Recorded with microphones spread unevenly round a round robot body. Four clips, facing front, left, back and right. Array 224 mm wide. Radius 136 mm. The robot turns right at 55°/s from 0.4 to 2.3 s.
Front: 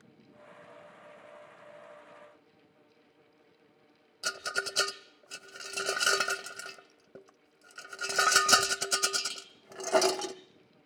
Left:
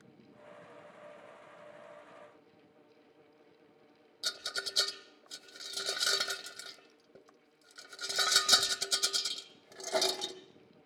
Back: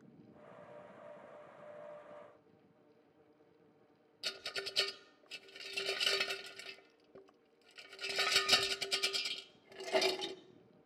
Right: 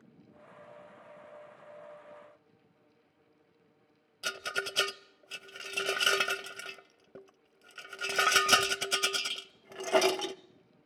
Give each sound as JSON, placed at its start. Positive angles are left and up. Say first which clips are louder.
{"t": 4.2, "sound": "a rattle", "louder": "right 7 dB, front 11 dB", "azimuth_deg": -50, "distance_m": 0.6}